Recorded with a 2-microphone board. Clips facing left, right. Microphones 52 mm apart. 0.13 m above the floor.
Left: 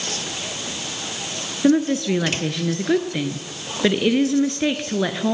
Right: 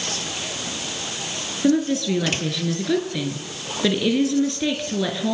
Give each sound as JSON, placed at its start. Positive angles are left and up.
{"t": 1.6, "sound": "a woman speaking", "side_deg": 25, "distance_m": 2.5}